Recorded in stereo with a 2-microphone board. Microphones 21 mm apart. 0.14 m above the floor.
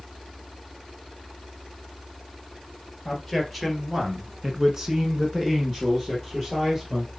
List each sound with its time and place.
3.0 s a man speaking: centre (ahead or behind), 2.5 m; by 7.1 s 25° right (ahead or behind), 3.5 m